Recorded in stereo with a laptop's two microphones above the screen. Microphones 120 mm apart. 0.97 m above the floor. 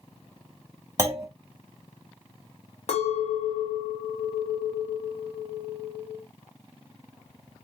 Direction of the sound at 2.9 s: 55° left (ahead or behind).